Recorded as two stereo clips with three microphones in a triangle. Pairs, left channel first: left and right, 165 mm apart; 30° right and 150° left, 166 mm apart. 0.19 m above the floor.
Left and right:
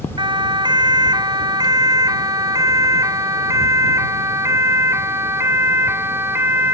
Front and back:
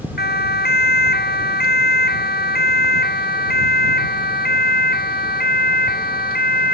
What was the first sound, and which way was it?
A siren, 25° right.